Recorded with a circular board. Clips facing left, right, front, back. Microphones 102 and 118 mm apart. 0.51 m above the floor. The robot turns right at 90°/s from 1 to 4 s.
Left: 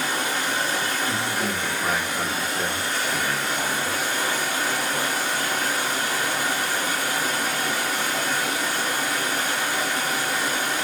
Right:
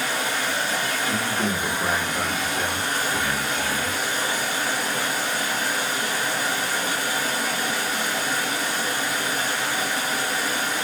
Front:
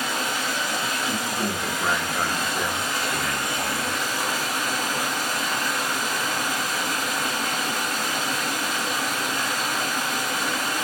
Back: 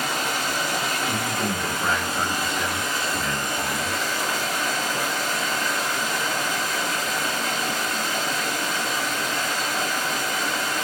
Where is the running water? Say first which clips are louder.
Even, back 1 dB; 140° left, 1.4 m; by 10.9 s 50° left, 1.4 m.